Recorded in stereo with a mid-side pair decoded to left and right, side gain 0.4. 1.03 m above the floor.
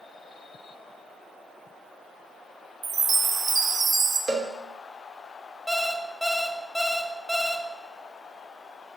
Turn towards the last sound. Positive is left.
turn(degrees=0)